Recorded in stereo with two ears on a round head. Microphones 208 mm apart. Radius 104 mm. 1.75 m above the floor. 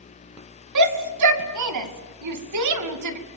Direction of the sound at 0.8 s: 90° right.